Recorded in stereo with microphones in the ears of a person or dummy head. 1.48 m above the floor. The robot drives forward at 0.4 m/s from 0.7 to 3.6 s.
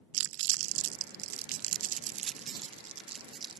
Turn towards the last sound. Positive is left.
turn(degrees=-25)  # may be behind; listen again after turning